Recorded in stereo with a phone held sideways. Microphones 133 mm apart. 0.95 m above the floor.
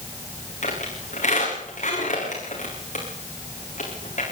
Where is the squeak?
60° left (ahead or behind), 8 m.